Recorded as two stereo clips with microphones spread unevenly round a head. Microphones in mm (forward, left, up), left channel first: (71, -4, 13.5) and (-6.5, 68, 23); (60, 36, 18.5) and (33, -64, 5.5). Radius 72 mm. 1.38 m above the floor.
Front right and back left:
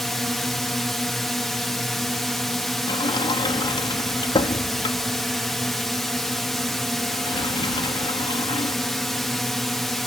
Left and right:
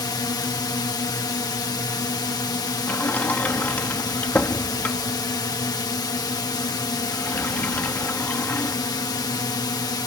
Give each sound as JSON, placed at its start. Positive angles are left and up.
{"t": 0.0, "sound": "a drone", "azimuth_deg": 40}
{"t": 2.9, "sound": "a sliding door", "azimuth_deg": 0}